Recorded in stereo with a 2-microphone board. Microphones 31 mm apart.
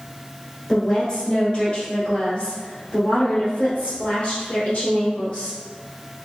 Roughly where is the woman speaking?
Centre.